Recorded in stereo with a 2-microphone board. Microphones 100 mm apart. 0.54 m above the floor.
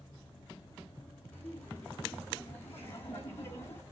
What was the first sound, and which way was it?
Laughter, 20° left (ahead or behind).